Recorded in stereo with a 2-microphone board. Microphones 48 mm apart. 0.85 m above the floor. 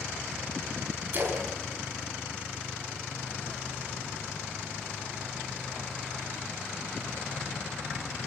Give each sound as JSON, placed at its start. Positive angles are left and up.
{"t": 1.1, "sound": "a splash", "side_deg": -40, "distance_m": 5.0}